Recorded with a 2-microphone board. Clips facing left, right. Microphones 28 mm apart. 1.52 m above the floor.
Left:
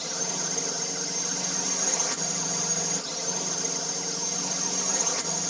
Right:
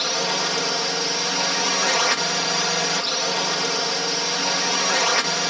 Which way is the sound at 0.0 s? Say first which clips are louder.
Right 11 dB; 60° right (ahead or behind).